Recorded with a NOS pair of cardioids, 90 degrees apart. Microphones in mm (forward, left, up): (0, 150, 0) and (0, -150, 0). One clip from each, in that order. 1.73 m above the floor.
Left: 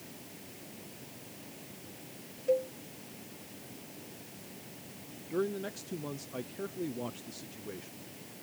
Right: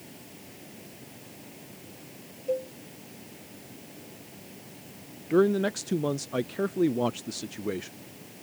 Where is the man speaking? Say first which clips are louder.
Right 11 dB; 55° right.